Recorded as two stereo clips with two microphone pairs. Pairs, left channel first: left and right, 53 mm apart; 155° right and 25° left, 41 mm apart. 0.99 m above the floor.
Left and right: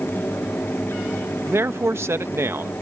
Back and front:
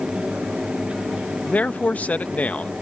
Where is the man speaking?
115° right.